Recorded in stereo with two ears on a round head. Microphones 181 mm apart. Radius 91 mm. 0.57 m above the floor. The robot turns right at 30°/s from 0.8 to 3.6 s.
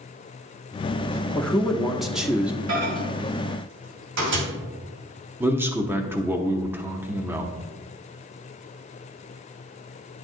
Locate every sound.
1.4 s a man speaking: 5° left (ahead or behind), 0.8 m; by 2.6 s 10° right (ahead or behind), 0.8 m
2.7 s a microwave: 75° right (ahead or behind), 3 m; by 4.5 s 65° right (ahead or behind), 3 m
5.4 s a man speaking: 10° right (ahead or behind), 0.8 m